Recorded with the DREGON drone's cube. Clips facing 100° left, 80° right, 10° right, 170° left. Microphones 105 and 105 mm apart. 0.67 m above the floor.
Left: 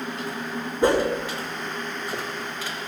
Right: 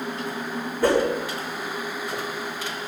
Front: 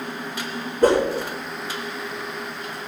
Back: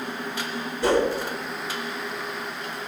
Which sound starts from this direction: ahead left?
A whoosh, at 0.8 s.